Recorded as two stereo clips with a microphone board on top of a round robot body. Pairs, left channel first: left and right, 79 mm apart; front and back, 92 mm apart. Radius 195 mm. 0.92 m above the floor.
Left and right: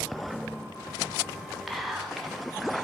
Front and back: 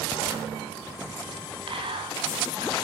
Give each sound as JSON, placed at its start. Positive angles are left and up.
{"t": 1.7, "sound": "whispering", "azimuth_deg": 180, "distance_m": 2.0}